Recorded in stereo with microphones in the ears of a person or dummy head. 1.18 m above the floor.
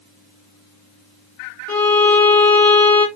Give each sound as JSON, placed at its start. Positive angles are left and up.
{"t": 1.7, "sound": "a violin", "side_deg": 10, "distance_m": 1.3}